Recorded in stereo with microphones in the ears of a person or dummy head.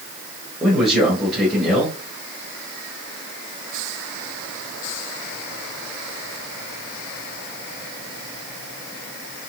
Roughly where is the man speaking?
Centre.